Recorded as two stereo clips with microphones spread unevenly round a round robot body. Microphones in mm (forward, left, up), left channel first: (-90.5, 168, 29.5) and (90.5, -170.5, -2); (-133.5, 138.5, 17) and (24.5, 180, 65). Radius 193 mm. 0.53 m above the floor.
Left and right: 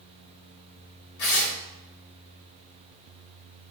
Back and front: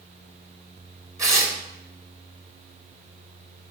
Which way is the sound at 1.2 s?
95° left.